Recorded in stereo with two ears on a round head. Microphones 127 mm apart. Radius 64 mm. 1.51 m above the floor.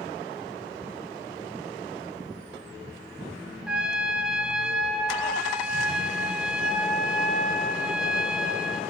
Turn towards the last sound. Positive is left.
turn(degrees=-5)  # may be behind; listen again after turning